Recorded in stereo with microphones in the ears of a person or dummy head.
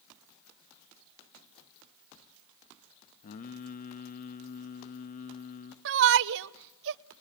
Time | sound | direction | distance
3.2 | singing | 50° left (ahead or behind) | 1.4 m
5.8 | a shout | 70° right (ahead or behind) | 0.8 m